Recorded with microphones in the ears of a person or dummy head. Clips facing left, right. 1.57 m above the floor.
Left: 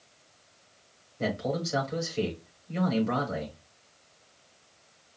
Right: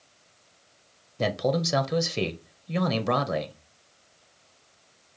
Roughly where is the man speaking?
Right.